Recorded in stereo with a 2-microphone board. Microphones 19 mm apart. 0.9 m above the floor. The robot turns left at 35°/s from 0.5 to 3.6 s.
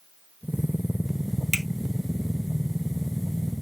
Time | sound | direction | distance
1.5 | a finger snap | centre (ahead or behind) | 1.3 m